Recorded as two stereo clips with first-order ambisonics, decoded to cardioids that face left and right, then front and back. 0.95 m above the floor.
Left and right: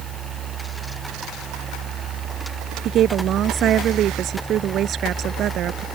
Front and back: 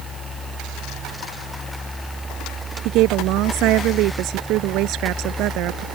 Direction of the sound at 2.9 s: 145° right.